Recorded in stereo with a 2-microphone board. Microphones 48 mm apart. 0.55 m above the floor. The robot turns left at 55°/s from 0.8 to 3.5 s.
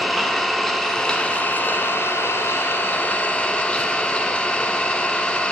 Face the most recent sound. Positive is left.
turn(degrees=20)